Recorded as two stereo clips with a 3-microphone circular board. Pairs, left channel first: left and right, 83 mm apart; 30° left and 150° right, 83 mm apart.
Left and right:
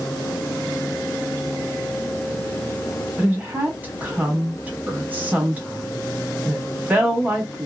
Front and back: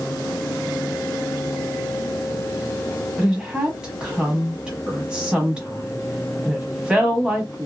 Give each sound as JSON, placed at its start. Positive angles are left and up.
{"t": 3.2, "sound": "a woman speaking", "azimuth_deg": -90, "distance_m": 1.1}